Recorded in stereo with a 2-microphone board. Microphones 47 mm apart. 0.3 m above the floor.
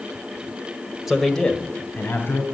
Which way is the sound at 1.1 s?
5° right (ahead or behind).